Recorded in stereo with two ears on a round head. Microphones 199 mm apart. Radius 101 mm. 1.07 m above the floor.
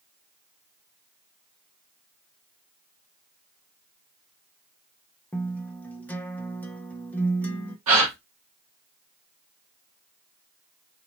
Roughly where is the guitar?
Centre.